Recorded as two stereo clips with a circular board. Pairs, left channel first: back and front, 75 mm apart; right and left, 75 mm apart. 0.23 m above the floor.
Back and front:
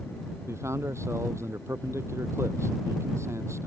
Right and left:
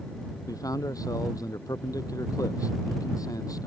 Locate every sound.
0.5 s a man speaking: 50° right